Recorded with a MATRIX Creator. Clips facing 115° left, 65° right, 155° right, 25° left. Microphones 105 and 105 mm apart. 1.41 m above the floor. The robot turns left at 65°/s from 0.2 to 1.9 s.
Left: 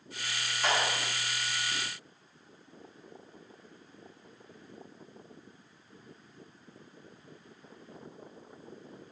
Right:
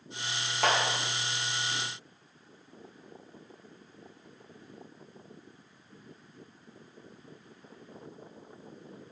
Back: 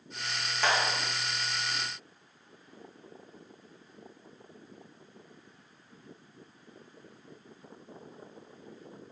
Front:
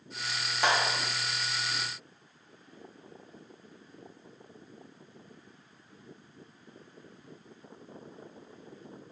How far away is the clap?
About 1.6 m.